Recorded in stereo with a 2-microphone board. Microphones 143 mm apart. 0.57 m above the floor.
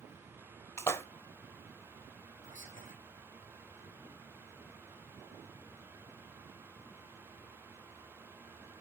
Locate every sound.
0.8 s a splash: 20° left (ahead or behind), 1.0 m
2.4 s whispering: 65° left (ahead or behind), 2.5 m